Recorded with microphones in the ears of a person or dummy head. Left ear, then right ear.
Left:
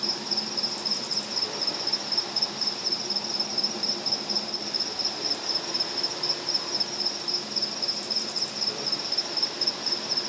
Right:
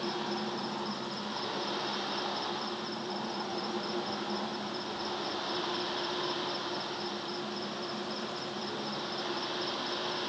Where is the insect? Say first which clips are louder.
Left 6 dB; 70° left (ahead or behind).